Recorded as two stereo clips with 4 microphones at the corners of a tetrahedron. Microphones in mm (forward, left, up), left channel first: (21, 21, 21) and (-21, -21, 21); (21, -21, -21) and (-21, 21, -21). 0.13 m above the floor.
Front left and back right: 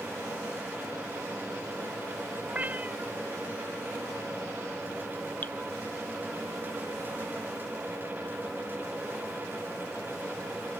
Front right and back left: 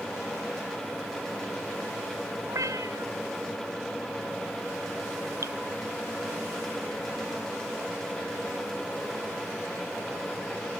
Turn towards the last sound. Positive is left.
turn(degrees=105)